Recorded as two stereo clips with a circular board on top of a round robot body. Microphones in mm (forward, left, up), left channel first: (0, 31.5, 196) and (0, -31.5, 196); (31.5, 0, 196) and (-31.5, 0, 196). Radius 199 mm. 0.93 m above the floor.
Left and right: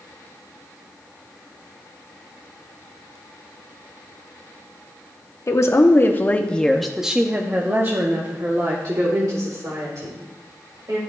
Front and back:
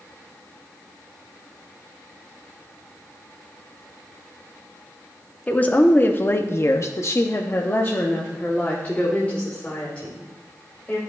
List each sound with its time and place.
5.5 s a woman speaking: 65° left, 1.1 m; by 11.0 s 75° right, 2.5 m